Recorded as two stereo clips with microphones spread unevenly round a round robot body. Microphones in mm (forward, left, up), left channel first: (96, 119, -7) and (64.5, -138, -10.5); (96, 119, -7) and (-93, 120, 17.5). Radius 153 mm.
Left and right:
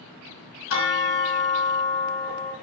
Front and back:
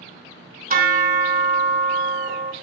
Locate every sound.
0.7 s a bell: 135° left, 3 m